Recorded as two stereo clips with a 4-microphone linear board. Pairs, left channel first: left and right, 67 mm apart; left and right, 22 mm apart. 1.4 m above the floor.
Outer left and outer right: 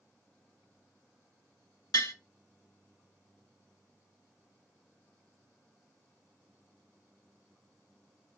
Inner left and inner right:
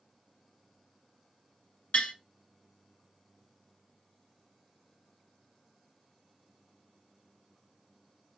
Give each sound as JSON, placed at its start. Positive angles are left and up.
{"t": 1.9, "sound": "tapping", "side_deg": 80, "distance_m": 1.2}